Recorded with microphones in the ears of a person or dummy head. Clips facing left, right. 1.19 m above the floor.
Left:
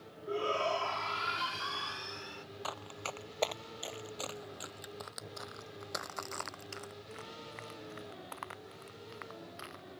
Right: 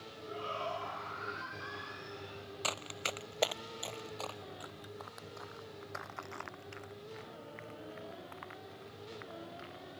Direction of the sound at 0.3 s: 65° left (ahead or behind).